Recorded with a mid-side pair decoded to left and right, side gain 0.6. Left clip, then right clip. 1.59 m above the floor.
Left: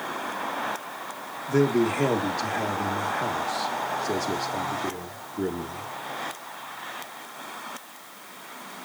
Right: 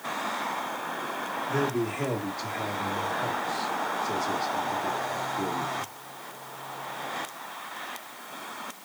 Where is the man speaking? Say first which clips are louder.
Left 7 dB; 35° left, 2 m.